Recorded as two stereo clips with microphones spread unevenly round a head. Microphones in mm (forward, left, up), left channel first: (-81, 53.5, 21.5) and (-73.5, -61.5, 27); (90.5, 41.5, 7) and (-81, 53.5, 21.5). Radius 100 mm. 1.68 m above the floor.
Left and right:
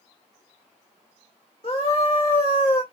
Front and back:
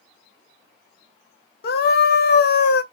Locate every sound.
1.6 s a scream: 30° left, 0.9 m